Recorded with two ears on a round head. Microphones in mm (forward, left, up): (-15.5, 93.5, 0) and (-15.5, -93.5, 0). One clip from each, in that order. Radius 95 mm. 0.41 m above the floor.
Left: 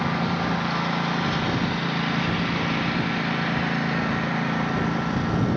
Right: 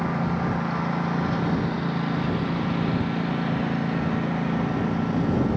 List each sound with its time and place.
0.0 s a lawn mower: 65° left (ahead or behind); by 5.6 s 35° left (ahead or behind)